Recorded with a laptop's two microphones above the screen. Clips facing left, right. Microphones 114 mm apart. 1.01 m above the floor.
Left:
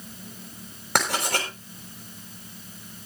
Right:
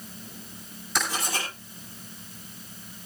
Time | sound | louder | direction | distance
0.9 | writing | left 4 dB | 60° left (ahead or behind) | 6.5 m